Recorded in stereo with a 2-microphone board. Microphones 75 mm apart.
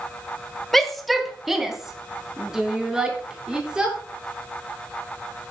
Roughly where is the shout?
Centre.